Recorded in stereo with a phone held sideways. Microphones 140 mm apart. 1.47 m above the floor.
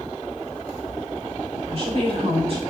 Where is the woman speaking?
45° right (ahead or behind), 5 m.